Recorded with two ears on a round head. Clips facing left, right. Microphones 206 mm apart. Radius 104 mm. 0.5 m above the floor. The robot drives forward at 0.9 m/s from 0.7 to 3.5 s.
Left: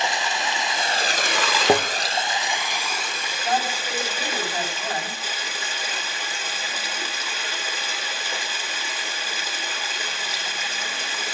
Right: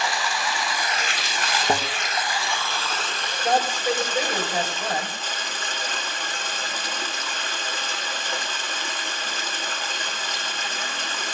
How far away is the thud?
About 2 m.